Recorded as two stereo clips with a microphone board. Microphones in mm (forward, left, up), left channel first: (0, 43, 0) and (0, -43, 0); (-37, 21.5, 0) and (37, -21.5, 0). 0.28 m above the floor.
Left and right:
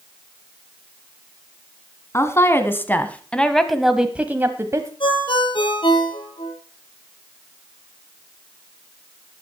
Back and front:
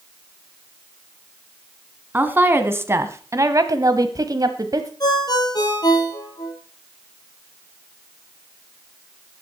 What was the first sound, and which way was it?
A woman speaking, 35° left.